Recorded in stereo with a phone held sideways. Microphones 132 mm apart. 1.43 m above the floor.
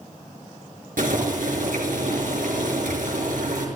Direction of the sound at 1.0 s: 85° right.